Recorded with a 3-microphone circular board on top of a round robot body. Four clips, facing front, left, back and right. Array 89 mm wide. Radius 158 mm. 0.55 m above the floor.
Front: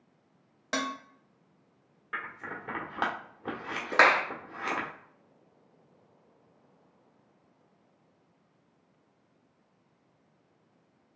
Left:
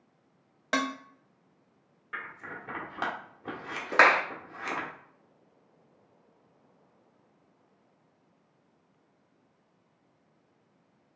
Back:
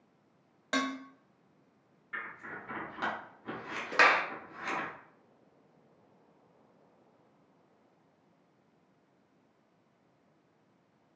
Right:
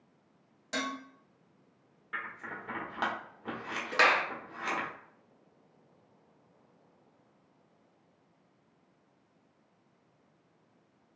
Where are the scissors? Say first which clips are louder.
Even, front 4 dB; straight ahead, 1.4 m.